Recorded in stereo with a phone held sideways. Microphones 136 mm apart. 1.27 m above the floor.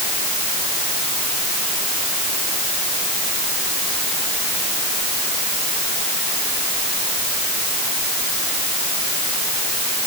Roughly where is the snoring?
No snoring in this recording.